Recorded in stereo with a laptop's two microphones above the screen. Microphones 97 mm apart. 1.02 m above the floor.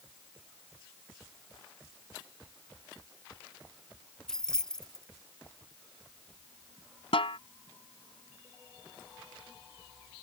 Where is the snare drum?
70° left (ahead or behind).